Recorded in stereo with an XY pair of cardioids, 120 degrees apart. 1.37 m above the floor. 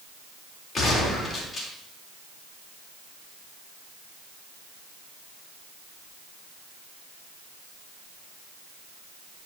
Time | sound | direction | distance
0.8 | a gunshot | 35° left | 4 m